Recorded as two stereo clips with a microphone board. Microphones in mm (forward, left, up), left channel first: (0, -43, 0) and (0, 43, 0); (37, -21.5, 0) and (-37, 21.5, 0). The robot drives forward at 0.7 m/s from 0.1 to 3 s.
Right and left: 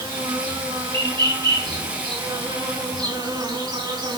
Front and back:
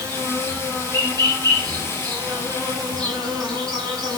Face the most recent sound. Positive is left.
turn(degrees=115)